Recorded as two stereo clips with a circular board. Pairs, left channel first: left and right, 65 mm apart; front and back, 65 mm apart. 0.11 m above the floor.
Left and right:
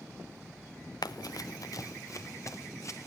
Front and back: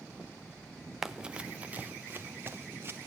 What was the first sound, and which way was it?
Running footsteps, 95° left.